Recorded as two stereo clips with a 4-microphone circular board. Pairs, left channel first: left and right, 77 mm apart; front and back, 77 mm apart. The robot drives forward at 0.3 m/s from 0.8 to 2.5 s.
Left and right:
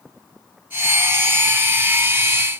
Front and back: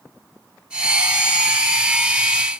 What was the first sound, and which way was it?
Only background noise.